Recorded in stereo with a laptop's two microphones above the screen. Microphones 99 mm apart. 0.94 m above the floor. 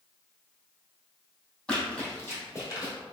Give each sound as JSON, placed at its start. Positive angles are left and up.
{"t": 1.7, "sound": "running footsteps", "side_deg": 10, "distance_m": 1.9}